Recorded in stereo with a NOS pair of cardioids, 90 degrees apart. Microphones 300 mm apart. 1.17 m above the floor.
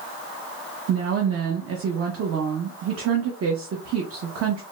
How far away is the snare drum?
I don't hear a snare drum.